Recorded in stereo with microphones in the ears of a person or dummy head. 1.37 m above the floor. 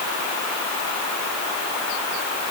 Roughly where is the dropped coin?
I don't hear a dropped coin.